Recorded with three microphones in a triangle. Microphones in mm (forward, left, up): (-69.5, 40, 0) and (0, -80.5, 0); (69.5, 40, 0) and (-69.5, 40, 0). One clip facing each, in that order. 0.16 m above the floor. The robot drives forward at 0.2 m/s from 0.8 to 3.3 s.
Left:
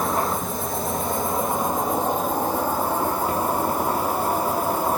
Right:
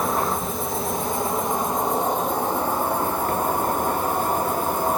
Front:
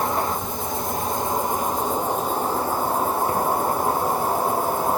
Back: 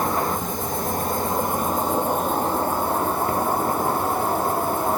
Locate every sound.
0.0 s an insect: 150° right, 1.6 m; by 5.0 s 160° right, 2.0 m